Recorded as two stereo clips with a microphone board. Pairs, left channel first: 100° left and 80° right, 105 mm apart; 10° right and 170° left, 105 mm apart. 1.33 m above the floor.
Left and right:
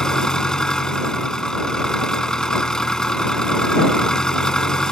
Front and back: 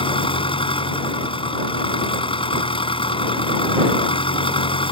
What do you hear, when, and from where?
0.0 s an engine running: 15° left